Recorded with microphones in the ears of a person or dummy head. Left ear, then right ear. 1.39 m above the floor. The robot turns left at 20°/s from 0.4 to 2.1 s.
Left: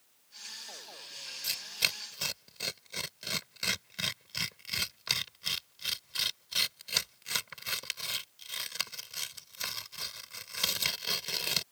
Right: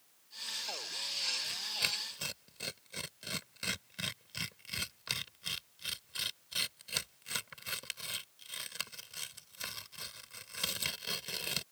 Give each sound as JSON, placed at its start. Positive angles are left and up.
{"t": 1.4, "sound": "tearing paper", "side_deg": 40}